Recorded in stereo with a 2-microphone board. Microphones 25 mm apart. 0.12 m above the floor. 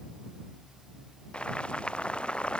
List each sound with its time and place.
1.3 s boiling: 45° left (ahead or behind)